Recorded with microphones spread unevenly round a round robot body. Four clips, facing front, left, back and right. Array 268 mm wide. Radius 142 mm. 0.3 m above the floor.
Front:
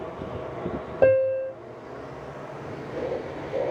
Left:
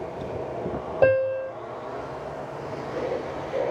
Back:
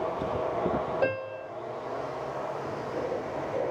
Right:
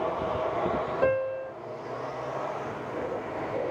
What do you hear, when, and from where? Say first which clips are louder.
1.0 s a piano: left 8 dB, front 11 dB; 35° left, 1.9 m